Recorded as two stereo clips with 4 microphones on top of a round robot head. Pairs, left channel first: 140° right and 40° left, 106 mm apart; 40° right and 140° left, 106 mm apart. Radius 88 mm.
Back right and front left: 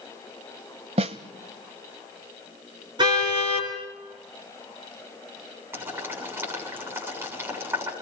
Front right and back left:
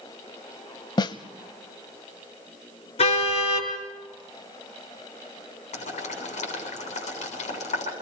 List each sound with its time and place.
1.0 s a snare drum: 10° left, 0.8 m
3.0 s a car horn: 10° right, 5 m
5.7 s boiling: 30° right, 6.5 m